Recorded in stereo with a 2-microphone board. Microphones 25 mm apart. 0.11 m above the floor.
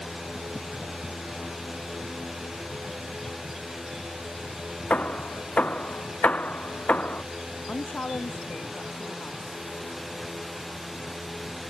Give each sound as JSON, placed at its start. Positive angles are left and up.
{"t": 4.9, "sound": "hammering", "side_deg": 70}
{"t": 7.7, "sound": "a woman speaking", "side_deg": 70}